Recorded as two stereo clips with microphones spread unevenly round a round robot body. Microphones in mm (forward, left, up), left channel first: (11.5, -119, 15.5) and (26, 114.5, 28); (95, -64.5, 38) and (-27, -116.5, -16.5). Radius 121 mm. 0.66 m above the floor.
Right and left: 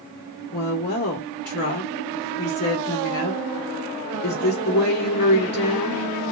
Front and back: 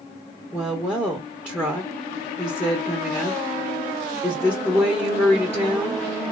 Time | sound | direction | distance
0.5 | a woman speaking | 70° right | 1.6 m